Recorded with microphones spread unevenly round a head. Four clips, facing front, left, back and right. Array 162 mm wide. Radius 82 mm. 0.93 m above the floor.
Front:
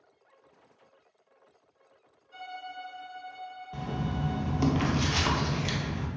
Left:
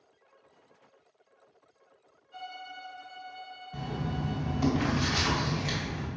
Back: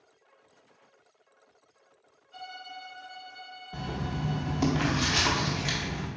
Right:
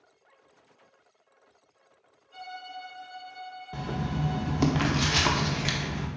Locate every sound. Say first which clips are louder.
2.3 s a violin: right 2 dB, front 2 dB; 5° left, 1.9 m
3.7 s writing: right 2 dB, front 1 dB; 95° right, 0.7 m